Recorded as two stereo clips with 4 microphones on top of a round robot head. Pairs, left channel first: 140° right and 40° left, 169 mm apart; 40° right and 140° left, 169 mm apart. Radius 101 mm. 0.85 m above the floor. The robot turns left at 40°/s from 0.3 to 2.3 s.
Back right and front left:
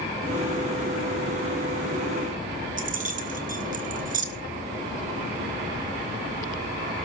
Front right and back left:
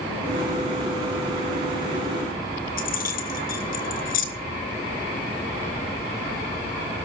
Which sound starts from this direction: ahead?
Keys jangling, at 2.8 s.